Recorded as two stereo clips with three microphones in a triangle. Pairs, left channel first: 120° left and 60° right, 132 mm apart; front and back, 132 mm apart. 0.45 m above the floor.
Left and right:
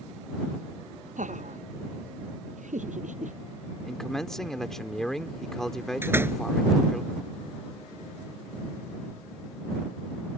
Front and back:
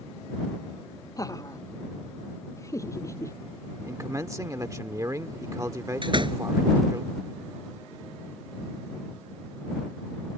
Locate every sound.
1.2 s laughter: 65° right
3.8 s a man speaking: 155° right
6.0 s a door slam: 130° right